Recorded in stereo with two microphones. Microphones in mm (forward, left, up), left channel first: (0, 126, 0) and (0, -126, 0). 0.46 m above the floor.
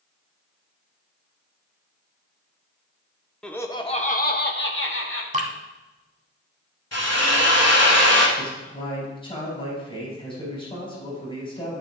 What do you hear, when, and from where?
3.4 s laughter: 5° left (ahead or behind), 0.7 m; by 5.2 s 55° left (ahead or behind), 1.2 m
5.3 s dripping: 30° right (ahead or behind), 1.1 m
6.9 s a drill: 80° left, 1.6 m
8.4 s a man speaking: 20° left (ahead or behind), 4 m